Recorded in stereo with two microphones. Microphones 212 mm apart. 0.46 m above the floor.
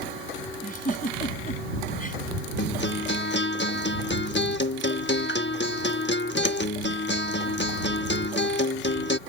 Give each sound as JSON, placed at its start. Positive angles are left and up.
{"t": 0.6, "sound": "a giggle", "side_deg": 40}
{"t": 2.6, "sound": "a guitar", "side_deg": 55}